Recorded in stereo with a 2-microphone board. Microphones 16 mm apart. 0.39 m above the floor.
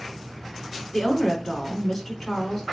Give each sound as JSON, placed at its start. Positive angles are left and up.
{"t": 0.9, "sound": "a woman speaking", "side_deg": 20, "distance_m": 3.5}